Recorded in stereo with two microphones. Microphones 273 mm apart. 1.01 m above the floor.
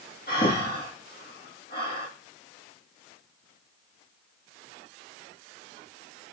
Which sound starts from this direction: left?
Breathing, at 0.3 s.